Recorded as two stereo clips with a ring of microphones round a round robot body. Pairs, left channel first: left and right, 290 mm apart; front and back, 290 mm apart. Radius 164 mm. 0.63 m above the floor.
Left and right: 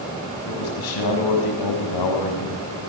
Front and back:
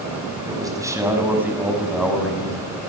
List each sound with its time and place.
0.5 s a man speaking: 105° left, 6 m; by 2.8 s 85° left, 6.5 m